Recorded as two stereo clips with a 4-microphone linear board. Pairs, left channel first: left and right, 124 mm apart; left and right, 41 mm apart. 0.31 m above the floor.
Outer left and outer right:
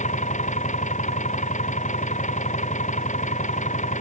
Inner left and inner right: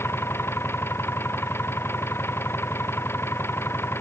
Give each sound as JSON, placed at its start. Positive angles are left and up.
{"t": 0.0, "sound": "an engine running", "side_deg": 80}